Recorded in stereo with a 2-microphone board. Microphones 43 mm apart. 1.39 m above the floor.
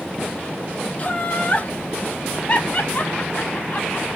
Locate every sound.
1.0 s laughter: 30° left (ahead or behind), 0.9 m